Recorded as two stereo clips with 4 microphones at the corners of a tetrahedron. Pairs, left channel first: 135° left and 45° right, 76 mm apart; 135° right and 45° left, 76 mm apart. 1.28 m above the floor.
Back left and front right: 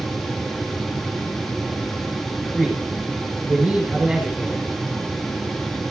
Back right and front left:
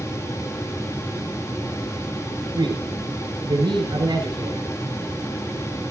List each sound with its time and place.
2.5 s a man speaking: 35° left, 4.5 m